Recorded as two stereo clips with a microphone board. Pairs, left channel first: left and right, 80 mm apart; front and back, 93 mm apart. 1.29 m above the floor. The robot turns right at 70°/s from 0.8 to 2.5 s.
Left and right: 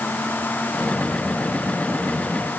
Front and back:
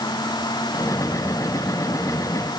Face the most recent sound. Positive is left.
No sound to turn to.